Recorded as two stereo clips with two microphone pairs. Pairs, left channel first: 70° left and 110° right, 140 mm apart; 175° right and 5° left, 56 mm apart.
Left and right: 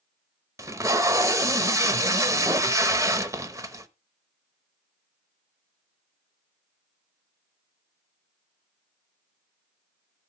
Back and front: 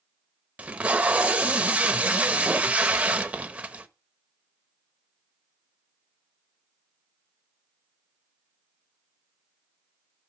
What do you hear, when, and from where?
0.6 s tape being pulled: 50° right, 0.8 m